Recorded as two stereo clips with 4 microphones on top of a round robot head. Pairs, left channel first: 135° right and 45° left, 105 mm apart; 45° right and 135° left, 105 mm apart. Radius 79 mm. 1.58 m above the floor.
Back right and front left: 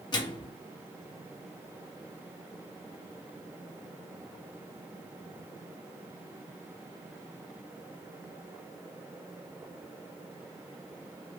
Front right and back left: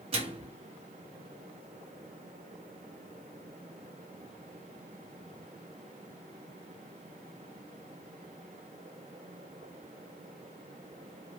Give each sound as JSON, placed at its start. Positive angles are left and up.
{"t": 0.1, "sound": "a microwave", "azimuth_deg": 175, "distance_m": 0.9}